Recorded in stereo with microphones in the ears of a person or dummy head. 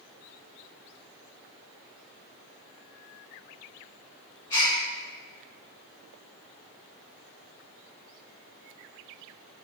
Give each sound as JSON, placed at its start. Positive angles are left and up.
{"t": 4.5, "sound": "a gasp", "side_deg": 15, "distance_m": 2.0}